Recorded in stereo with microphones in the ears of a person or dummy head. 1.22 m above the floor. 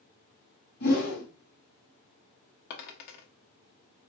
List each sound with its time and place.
0.8 s a whoosh: 55° left (ahead or behind), 1.9 m
2.7 s a dropped coin: 55° left (ahead or behind), 1.1 m